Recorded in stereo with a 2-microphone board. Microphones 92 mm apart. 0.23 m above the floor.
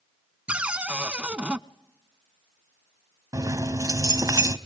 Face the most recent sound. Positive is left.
turn(degrees=-40)  # may be behind; listen again after turning